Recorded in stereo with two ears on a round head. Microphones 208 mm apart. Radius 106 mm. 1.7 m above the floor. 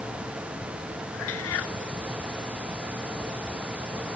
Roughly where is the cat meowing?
Left.